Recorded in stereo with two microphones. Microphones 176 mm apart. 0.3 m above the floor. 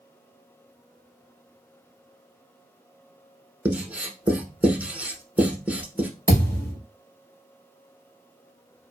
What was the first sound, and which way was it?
Writing, 10° right (ahead or behind).